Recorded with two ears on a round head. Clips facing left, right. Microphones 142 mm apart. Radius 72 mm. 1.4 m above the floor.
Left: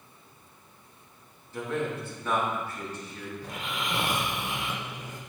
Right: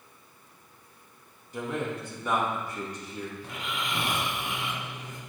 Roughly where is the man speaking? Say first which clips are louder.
Left 1 dB; centre.